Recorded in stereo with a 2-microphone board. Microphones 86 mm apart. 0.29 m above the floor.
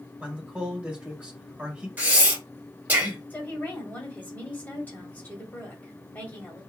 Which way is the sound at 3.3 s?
20° left (ahead or behind).